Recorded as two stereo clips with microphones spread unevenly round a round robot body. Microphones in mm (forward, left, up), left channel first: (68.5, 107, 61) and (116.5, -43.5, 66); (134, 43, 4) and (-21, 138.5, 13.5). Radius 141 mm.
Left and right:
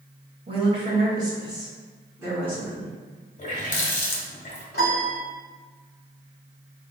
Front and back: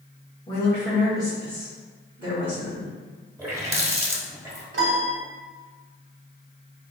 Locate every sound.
0.5 s a woman speaking: 90° right, 1.3 m; by 2.9 s 155° right, 1.9 m
3.4 s a running tap: 75° left, 1.3 m
4.7 s a piano: 155° left, 1.0 m